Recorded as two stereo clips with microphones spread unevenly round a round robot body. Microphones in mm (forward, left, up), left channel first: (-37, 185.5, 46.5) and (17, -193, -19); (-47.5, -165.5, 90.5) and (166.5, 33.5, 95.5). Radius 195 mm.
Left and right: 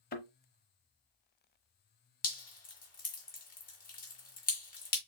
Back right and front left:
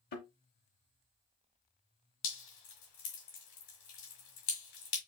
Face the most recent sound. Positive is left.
turn(degrees=165)